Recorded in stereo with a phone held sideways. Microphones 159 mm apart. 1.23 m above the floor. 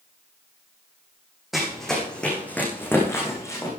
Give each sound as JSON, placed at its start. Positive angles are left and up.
{"t": 1.5, "sound": "running footsteps", "side_deg": 0, "distance_m": 3.5}